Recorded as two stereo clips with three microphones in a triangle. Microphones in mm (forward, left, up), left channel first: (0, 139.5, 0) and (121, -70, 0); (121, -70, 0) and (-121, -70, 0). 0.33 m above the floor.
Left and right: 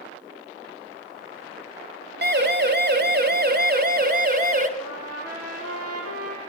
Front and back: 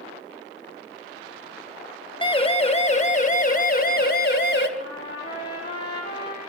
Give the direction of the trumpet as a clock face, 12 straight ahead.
2 o'clock.